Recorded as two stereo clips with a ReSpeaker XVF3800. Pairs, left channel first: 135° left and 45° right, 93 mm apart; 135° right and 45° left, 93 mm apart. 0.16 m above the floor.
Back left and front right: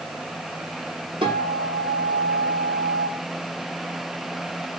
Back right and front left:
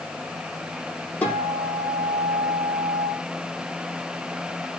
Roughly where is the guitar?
Ahead right.